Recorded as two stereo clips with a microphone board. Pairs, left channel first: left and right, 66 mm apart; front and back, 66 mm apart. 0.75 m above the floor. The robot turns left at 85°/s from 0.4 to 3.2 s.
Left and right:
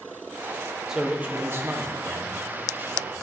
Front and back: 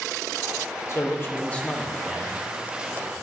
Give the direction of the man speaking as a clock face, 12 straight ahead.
12 o'clock.